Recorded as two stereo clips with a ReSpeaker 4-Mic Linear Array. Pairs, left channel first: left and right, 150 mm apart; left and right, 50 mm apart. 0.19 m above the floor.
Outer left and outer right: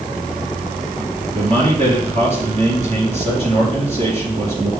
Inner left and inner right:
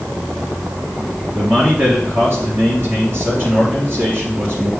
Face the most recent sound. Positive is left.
turn(degrees=-50)  # may be behind; listen again after turning